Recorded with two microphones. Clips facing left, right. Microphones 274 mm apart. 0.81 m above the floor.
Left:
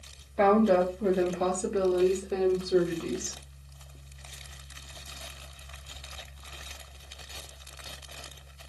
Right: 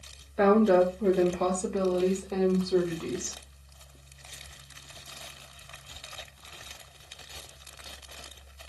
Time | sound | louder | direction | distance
0.4 | a woman speaking | right 2 dB | 5° right (ahead or behind) | 0.8 m